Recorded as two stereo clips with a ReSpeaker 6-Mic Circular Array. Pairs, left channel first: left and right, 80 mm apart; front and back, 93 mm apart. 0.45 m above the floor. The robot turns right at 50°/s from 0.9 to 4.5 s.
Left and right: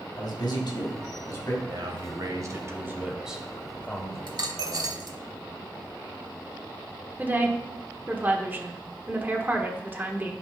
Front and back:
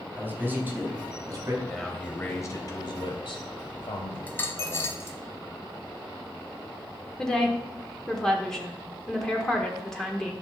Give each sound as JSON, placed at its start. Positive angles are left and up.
{"t": 0.2, "sound": "a man speaking", "azimuth_deg": 110, "distance_m": 3.0}
{"t": 1.6, "sound": "a man speaking", "azimuth_deg": -90, "distance_m": 1.6}
{"t": 4.3, "sound": "a dropped coin", "azimuth_deg": -75, "distance_m": 0.9}
{"t": 7.2, "sound": "a woman speaking", "azimuth_deg": -75, "distance_m": 1.1}